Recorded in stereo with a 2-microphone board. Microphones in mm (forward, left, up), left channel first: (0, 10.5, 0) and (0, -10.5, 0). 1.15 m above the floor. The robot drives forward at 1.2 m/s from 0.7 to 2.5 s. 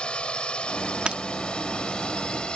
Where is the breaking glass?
50° right (ahead or behind); by 1.2 s 55° right (ahead or behind).